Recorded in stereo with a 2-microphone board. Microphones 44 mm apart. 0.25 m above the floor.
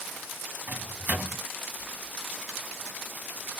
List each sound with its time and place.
0.7 s a microwave: 45° right (ahead or behind), 1.2 m